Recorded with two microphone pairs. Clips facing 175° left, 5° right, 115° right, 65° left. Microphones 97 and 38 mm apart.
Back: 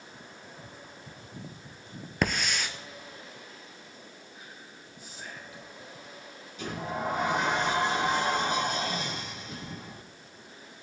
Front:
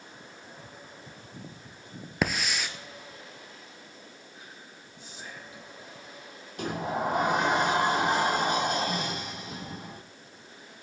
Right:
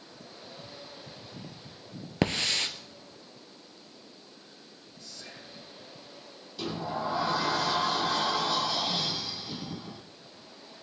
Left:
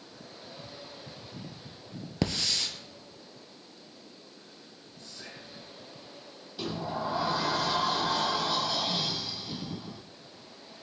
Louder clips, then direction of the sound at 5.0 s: Even, left 1 dB; 60° left.